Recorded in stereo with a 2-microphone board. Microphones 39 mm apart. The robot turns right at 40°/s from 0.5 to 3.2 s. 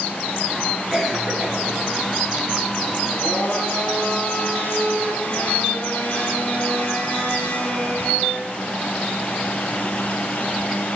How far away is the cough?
About 3.5 m.